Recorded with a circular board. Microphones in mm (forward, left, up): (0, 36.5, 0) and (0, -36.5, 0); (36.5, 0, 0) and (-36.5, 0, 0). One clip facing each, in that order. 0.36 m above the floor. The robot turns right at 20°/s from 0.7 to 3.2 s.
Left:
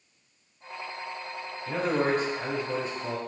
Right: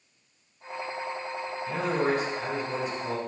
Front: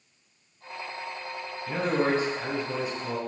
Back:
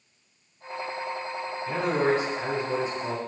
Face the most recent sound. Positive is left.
turn(degrees=135)